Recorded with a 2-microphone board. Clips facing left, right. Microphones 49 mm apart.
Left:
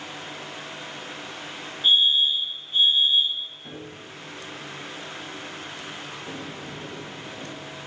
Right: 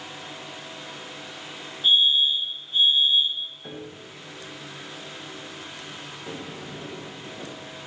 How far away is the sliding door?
About 7 m.